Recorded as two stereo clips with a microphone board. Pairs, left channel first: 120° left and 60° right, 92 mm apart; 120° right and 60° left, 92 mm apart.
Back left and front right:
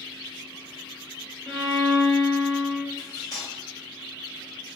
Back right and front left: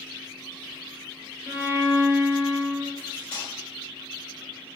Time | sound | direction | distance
1.5 | a violin | 50° left | 0.8 m
3.0 | cutlery clinking | 165° left | 1.4 m